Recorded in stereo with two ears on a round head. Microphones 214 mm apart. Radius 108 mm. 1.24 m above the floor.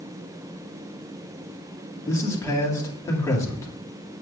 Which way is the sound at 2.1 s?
10° left (ahead or behind).